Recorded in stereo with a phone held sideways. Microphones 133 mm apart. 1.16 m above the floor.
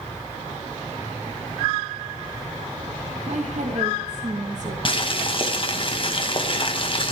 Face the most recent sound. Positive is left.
turn(degrees=40)  # may be behind; listen again after turning